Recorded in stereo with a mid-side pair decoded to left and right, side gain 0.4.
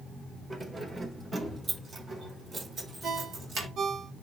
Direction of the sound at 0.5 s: 40° right.